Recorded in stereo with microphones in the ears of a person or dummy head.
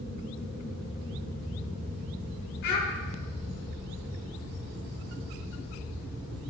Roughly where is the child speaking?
Left.